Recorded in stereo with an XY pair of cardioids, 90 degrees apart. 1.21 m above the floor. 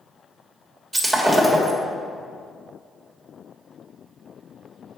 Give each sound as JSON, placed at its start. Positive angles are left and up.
{"t": 0.9, "sound": "breaking glass", "azimuth_deg": -10, "distance_m": 1.4}